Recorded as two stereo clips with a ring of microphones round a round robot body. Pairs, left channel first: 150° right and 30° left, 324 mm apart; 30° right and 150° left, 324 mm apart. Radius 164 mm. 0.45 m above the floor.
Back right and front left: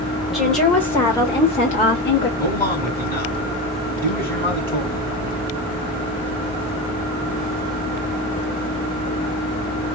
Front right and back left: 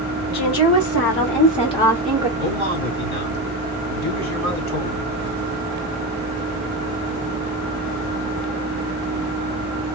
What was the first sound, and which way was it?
A woman speaking, 60° right.